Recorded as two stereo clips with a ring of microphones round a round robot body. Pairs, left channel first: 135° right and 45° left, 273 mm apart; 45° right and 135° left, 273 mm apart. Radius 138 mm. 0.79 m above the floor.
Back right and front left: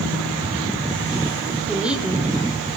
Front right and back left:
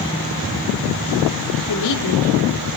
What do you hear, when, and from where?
1.7 s a woman speaking: 40° right, 2.5 m